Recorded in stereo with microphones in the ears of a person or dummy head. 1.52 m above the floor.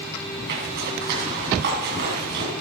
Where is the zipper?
55° right (ahead or behind), 6 m.